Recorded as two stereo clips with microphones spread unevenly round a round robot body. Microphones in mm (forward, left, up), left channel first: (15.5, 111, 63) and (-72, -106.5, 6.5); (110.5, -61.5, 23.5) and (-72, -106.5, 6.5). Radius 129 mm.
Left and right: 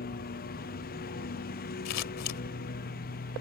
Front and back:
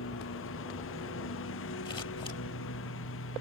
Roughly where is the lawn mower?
Ahead.